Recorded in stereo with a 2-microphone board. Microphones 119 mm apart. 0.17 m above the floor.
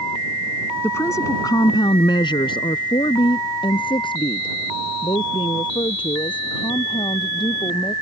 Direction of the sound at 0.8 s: 20° left (ahead or behind).